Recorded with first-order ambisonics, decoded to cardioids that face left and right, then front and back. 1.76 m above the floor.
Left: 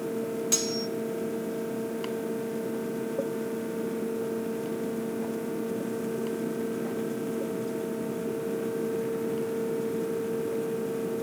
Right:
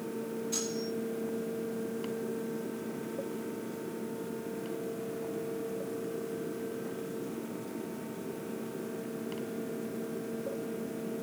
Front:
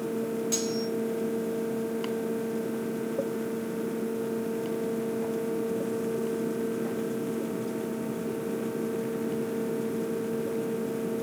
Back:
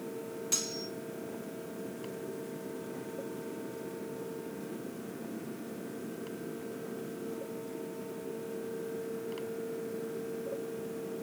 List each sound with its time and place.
0.5 s cutlery clinking: 95° left, 2 m